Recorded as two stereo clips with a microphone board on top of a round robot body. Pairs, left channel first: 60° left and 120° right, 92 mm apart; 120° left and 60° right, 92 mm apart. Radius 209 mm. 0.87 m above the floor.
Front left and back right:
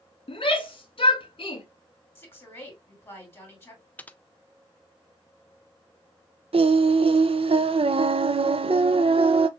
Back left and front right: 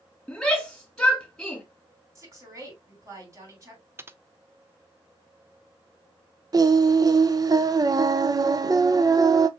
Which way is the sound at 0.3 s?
35° left.